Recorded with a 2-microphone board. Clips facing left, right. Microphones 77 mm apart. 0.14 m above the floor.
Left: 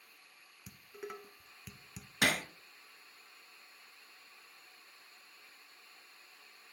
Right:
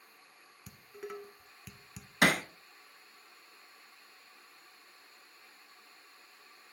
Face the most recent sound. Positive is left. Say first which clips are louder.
# right 5 dB
turn(degrees=-55)  # may be behind; listen again after turning